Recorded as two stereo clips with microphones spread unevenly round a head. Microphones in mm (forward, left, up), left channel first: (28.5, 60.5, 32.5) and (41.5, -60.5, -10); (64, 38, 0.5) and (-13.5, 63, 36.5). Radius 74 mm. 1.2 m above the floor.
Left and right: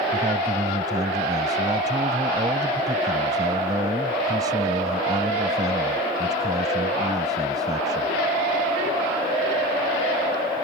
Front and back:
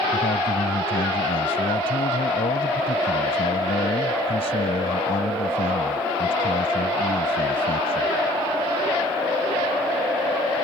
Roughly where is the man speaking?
Ahead.